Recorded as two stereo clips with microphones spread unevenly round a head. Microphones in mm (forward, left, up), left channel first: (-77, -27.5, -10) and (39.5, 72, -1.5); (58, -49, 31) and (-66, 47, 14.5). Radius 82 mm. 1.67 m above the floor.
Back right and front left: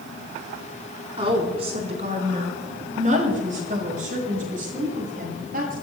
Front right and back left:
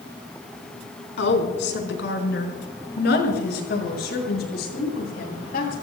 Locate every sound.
1.2 s a woman speaking: 20° right, 4 m; by 5.7 s 5° right, 9 m